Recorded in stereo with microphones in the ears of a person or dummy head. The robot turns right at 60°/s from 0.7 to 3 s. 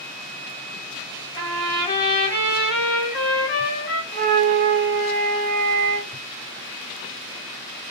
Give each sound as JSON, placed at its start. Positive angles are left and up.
{"t": 1.4, "sound": "a trumpet", "azimuth_deg": -50, "distance_m": 2.5}
{"t": 4.1, "sound": "a flute", "side_deg": -45, "distance_m": 0.7}